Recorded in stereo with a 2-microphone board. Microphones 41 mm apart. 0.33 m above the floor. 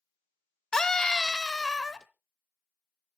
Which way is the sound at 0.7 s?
15° left (ahead or behind).